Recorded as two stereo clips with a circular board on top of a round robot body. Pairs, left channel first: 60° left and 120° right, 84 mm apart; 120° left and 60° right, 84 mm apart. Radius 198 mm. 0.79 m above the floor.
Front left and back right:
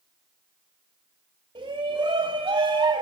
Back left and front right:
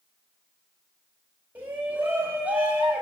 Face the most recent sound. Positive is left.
turn(degrees=-135)